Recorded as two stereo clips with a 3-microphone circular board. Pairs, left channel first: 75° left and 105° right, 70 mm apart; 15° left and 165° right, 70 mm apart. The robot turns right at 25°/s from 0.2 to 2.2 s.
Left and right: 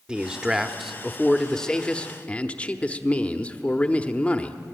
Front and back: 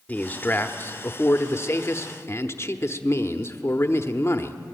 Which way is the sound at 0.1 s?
35° right.